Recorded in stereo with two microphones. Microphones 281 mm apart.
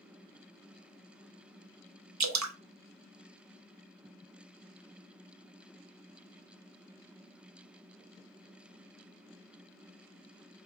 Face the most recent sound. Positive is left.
turn(degrees=-75)  # may be behind; listen again after turning